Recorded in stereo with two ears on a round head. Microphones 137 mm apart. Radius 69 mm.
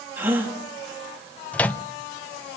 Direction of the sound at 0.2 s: 15° right (ahead or behind).